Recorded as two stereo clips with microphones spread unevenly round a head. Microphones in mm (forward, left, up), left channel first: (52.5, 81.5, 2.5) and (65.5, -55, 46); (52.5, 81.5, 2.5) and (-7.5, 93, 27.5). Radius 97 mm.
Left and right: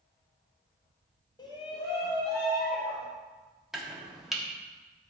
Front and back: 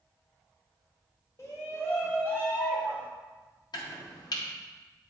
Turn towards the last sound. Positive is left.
turn(degrees=-20)